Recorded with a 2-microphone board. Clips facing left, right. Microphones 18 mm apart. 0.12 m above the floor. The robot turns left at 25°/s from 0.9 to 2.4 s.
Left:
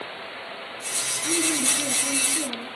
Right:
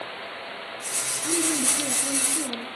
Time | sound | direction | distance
1.2 | a woman speaking | 15° right (ahead or behind) | 1.1 m